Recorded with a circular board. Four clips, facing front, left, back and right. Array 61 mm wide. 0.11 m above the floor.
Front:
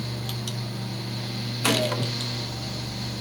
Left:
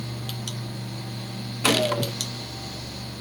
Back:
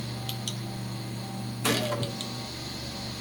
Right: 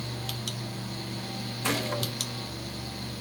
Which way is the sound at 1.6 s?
65° left.